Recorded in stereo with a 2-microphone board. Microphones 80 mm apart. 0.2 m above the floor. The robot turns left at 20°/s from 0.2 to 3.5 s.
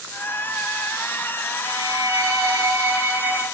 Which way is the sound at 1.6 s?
115° right.